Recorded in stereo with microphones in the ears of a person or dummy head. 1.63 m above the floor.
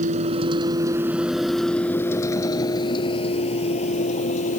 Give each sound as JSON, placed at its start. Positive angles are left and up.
{"t": 0.0, "sound": "a vehicle", "side_deg": -40}